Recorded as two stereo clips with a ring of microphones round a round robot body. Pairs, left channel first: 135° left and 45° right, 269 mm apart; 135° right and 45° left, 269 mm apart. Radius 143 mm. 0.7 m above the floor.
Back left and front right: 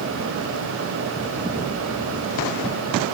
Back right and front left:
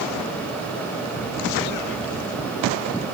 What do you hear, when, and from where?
Only background noise.